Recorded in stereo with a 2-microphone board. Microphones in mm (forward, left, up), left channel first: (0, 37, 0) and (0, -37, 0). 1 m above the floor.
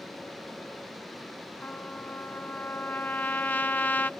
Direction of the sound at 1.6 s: 25° left (ahead or behind).